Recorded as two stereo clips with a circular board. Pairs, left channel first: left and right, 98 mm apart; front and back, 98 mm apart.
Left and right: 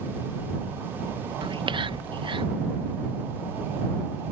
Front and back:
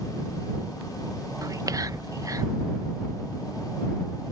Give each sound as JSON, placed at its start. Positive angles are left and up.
{"t": 1.4, "sound": "whispering", "azimuth_deg": -125}